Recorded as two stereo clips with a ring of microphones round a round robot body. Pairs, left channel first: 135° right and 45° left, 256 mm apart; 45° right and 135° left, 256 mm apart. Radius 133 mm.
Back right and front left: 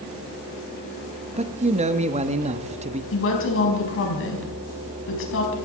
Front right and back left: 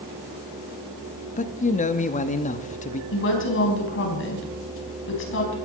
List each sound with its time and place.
1.4 s a man speaking: 5° right, 1.0 m
3.1 s a woman speaking: 90° right, 4.5 m